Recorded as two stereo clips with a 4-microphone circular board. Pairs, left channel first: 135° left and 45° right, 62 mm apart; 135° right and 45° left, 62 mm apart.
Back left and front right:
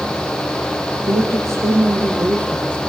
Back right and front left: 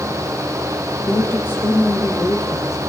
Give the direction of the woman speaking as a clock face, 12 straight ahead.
2 o'clock.